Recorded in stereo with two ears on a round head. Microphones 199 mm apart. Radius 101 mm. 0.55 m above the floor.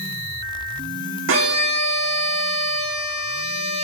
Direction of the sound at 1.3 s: 60° right (ahead or behind).